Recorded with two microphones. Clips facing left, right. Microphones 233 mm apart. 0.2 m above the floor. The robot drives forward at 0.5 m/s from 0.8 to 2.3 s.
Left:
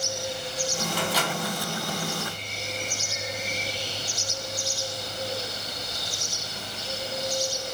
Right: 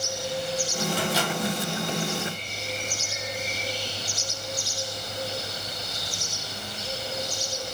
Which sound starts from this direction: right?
A microwave, at 0.9 s.